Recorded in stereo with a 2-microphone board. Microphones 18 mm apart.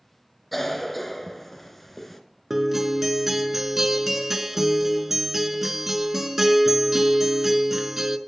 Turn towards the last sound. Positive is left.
turn(degrees=-15)  # may be behind; listen again after turning